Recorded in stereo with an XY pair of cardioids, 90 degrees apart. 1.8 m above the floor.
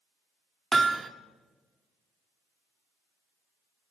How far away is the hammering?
About 1.5 m.